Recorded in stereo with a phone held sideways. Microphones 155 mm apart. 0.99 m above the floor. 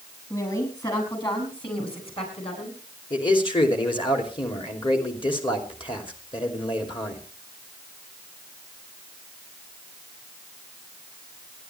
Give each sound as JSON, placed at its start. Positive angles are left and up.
{"t": 0.3, "sound": "a woman speaking", "side_deg": 25, "distance_m": 6.5}
{"t": 3.1, "sound": "a man speaking", "side_deg": 35, "distance_m": 3.0}